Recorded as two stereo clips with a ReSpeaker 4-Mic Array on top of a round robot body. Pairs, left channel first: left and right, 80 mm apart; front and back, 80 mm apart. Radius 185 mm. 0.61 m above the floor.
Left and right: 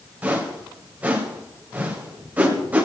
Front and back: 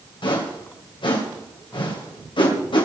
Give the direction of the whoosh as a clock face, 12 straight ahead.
1 o'clock.